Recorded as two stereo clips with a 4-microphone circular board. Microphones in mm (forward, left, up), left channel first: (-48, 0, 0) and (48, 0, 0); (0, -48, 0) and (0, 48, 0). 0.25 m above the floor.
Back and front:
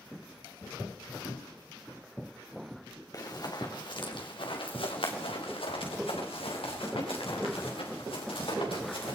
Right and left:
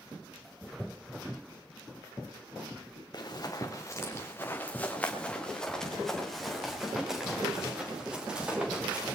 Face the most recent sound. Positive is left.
turn(degrees=165)